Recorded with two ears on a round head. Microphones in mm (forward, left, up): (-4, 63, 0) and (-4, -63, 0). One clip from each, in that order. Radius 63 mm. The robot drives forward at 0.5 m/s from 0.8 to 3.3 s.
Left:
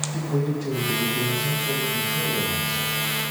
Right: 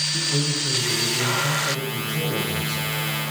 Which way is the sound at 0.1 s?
70° right (ahead or behind).